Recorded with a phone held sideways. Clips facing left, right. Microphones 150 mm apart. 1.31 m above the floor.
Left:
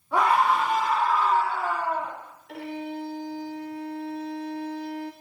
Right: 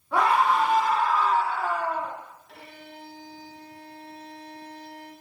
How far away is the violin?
About 0.9 m.